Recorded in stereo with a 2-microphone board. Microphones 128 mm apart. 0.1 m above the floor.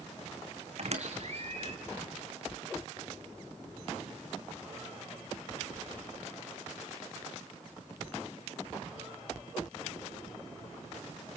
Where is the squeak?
55° right (ahead or behind), 1.8 m.